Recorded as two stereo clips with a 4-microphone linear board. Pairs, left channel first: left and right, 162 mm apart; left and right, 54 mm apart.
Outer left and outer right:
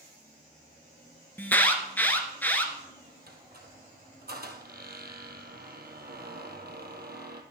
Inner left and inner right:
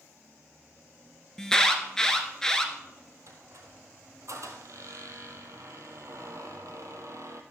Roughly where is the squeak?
Right.